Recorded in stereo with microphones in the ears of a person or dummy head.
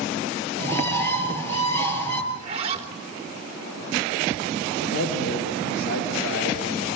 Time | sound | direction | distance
0.6 | a bird | 20° left (ahead or behind) | 7 m
2.3 | a zipper | 35° right (ahead or behind) | 3.5 m
4.8 | a man speaking | 75° left (ahead or behind) | 4.5 m